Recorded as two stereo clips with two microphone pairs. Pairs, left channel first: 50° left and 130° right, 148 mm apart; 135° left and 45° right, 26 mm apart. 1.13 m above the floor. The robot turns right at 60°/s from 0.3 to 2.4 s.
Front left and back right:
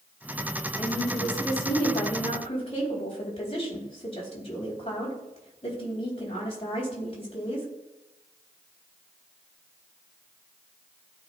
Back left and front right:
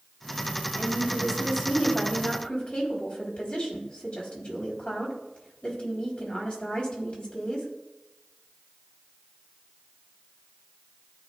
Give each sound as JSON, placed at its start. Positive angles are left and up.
{"t": 0.8, "sound": "a woman speaking", "azimuth_deg": 0, "distance_m": 3.5}